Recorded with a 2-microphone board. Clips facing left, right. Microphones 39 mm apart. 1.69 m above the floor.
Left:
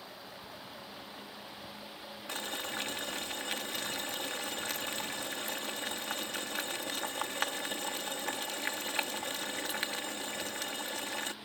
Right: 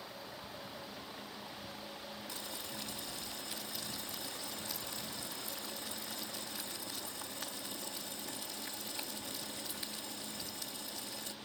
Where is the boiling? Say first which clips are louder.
Left 7 dB; 60° left (ahead or behind).